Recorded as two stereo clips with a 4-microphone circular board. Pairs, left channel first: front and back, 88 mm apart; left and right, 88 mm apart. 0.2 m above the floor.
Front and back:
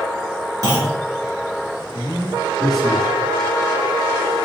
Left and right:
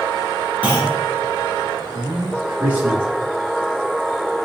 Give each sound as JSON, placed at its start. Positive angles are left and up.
{"t": 0.6, "sound": "a clunk", "azimuth_deg": -155, "distance_m": 1.4}
{"t": 1.9, "sound": "a man speaking", "azimuth_deg": -100, "distance_m": 1.0}